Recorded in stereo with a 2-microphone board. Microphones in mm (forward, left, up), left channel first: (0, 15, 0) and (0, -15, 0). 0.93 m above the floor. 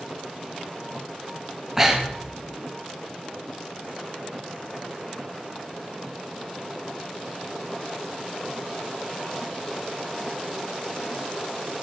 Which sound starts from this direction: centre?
Breathing, at 1.8 s.